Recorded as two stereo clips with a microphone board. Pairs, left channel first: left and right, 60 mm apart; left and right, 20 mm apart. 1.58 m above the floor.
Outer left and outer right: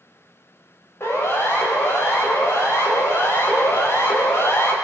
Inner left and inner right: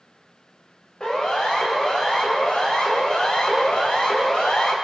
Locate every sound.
1.0 s a siren: 40° left (ahead or behind), 9.5 m